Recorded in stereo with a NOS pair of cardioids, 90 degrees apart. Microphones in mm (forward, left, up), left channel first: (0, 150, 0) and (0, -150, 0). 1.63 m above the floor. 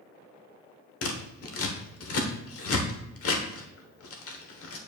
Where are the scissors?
50° left, 1.2 m.